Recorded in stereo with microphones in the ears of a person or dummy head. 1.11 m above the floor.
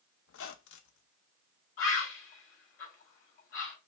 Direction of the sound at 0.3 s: 80° left.